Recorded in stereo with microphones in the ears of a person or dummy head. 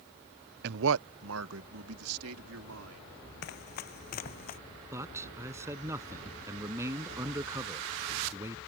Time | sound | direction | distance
0.6 | a man speaking | 50° right (ahead or behind) | ?
3.4 | running footsteps | 55° left (ahead or behind) | ?
4.9 | a man speaking | 15° right (ahead or behind) | ?